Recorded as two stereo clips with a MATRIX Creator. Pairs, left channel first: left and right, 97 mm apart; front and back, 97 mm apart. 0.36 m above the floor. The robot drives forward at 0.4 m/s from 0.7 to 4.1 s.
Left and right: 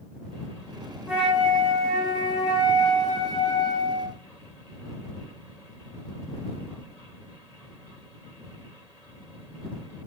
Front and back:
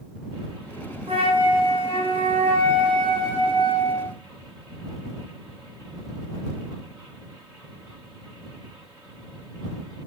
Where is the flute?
170° right, 0.8 m; by 4.2 s 175° right, 2 m.